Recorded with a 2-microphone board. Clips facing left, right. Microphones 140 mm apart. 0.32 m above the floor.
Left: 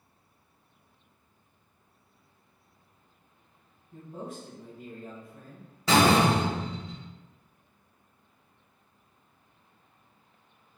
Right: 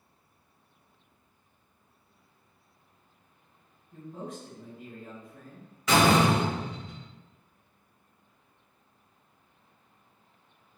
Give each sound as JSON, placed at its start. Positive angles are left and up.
{"t": 3.9, "sound": "a man speaking", "side_deg": 25, "distance_m": 1.7}
{"t": 5.9, "sound": "a door slam", "side_deg": 35, "distance_m": 1.1}